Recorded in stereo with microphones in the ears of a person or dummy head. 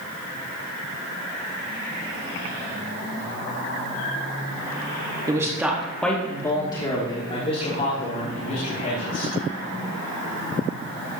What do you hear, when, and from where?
5.3 s a man speaking: 15° right (ahead or behind), 1.4 m; by 9.3 s 45° left (ahead or behind), 4 m